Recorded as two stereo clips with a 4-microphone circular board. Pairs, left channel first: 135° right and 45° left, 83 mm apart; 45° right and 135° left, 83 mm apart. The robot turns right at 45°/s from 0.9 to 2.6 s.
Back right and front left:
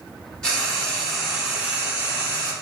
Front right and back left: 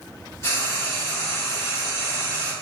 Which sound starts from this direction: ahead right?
Frying, at 0.4 s.